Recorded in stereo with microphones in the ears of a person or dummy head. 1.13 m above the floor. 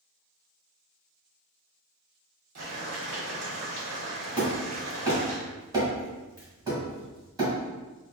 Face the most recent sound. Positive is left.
turn(degrees=-15)  # may be behind; listen again after turning